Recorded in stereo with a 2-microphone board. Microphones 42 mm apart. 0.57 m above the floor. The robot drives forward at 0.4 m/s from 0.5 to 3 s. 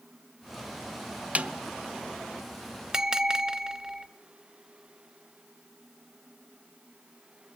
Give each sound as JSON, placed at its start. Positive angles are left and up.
{"t": 1.4, "sound": "a snare drum", "side_deg": -35, "distance_m": 0.9}
{"t": 2.9, "sound": "a bell", "side_deg": -15, "distance_m": 0.8}